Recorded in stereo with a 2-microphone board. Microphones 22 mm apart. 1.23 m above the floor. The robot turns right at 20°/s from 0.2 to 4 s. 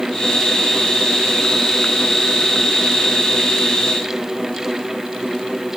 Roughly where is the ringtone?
I don't hear a ringtone.